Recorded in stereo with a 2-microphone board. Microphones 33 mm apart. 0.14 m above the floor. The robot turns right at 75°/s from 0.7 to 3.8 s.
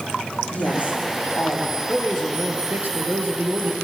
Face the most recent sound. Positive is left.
turn(degrees=-35)